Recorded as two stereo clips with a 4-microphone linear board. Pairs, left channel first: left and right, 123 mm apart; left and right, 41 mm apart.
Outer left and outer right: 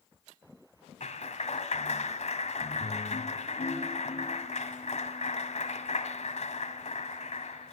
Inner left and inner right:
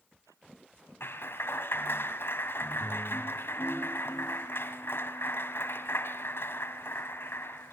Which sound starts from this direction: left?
A clap, at 1.0 s.